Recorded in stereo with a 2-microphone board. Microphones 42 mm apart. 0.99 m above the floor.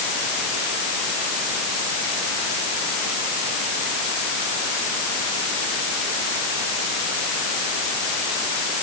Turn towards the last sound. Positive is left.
No sound to turn to.